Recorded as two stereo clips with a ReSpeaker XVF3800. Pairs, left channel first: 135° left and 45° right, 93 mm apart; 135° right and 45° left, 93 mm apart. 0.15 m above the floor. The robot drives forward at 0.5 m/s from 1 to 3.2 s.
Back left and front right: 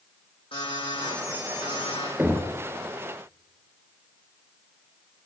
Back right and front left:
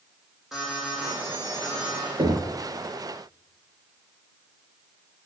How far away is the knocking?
About 3 m.